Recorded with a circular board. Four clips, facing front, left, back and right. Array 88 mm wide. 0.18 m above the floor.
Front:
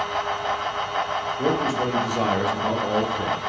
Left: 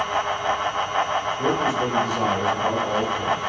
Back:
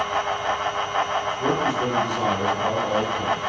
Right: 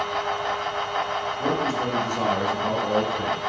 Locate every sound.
1.4 s a man speaking: 10° left, 3 m; by 3.4 s 25° right, 2 m